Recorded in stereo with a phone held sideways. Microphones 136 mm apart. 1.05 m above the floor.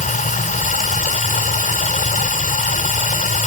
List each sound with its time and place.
0.0 s running water: 75° left (ahead or behind)